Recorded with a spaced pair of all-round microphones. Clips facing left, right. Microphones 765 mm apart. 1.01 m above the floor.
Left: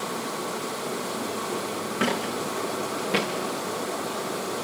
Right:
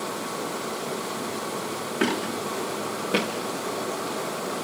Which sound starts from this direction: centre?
Footsteps, at 2.0 s.